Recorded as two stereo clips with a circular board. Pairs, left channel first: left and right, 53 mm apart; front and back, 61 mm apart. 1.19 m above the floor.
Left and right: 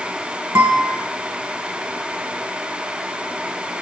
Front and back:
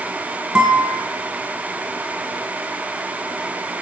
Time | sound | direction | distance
0.6 | a guitar | 110° right | 1.2 m